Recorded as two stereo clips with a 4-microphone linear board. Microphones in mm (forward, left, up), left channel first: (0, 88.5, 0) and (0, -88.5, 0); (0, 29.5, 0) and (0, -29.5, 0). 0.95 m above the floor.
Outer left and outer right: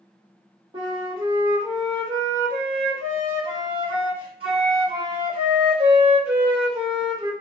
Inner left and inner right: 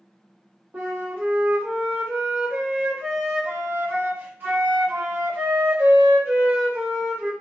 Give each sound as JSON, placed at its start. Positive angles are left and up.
{"t": 0.7, "sound": "a flute", "side_deg": -30, "distance_m": 0.9}